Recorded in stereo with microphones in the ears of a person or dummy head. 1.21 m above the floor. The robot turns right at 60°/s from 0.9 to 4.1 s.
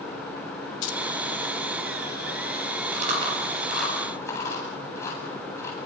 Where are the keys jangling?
80° left, 2 m; by 1.0 s 85° left, 2 m.